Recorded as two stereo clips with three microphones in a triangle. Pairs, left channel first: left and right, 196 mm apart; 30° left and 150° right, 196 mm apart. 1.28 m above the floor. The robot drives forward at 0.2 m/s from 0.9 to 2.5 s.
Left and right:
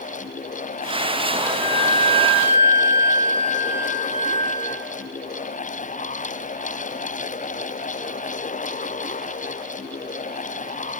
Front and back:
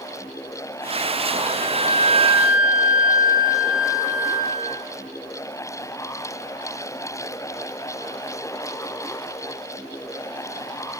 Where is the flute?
165° left, 0.8 m; by 4.7 s 170° left, 1.0 m.